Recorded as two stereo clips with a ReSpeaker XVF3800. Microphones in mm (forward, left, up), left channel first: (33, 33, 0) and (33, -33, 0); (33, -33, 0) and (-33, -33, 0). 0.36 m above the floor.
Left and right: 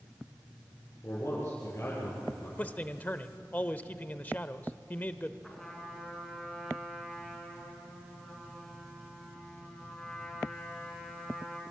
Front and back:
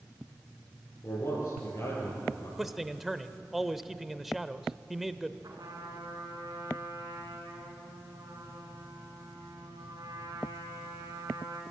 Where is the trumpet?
175° left, 4.5 m.